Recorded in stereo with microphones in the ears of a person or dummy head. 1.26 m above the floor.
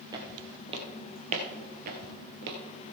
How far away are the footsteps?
About 2.5 m.